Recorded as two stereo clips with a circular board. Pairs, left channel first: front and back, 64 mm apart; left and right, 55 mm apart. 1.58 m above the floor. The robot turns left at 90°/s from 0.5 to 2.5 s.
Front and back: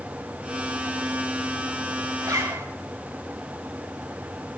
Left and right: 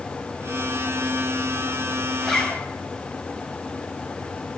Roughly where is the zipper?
Behind.